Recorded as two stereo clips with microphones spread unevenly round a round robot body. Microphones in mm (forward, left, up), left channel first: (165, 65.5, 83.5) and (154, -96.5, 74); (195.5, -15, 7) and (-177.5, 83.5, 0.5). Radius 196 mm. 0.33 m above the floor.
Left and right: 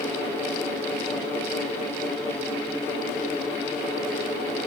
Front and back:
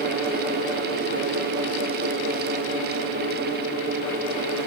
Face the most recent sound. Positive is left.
No sound to turn to.